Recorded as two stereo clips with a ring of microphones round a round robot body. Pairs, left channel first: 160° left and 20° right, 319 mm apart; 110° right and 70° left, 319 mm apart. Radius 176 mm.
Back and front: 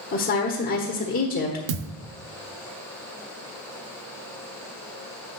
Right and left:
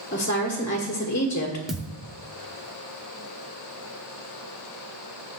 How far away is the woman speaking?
About 1.5 m.